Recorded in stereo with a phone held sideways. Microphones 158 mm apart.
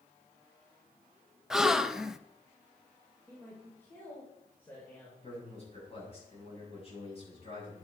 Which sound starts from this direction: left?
A man speaking, at 5.2 s.